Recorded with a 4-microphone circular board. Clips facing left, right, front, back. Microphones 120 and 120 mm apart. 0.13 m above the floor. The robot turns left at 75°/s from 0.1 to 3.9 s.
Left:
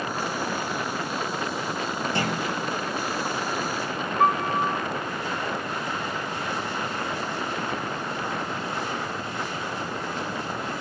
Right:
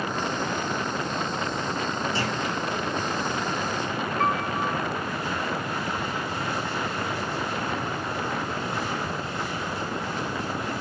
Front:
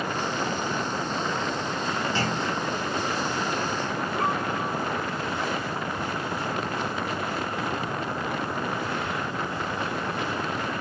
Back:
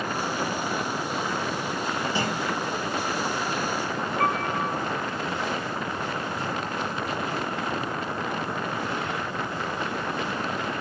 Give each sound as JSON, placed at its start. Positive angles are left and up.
{"t": 2.1, "sound": "a clunk", "azimuth_deg": 105, "distance_m": 1.6}
{"t": 4.2, "sound": "a piano", "azimuth_deg": 175, "distance_m": 0.6}